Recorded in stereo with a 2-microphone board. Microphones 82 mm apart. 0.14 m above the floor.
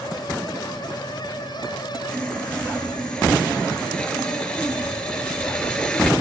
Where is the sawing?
5° left (ahead or behind), 6 m.